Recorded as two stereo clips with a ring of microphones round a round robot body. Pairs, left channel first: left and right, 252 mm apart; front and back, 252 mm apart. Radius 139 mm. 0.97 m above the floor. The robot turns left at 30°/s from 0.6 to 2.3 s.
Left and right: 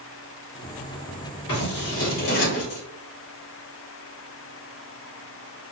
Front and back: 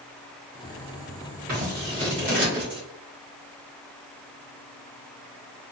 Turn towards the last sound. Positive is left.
turn(degrees=95)